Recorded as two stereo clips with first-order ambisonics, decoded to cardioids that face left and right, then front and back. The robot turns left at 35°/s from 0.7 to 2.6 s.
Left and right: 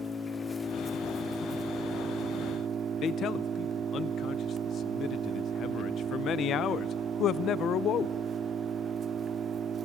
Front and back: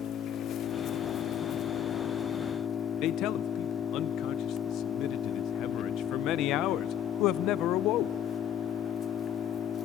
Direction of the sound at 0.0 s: 20° left.